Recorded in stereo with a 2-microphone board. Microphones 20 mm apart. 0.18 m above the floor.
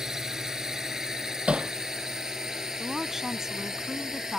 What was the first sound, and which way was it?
A drone, 30° right (ahead or behind).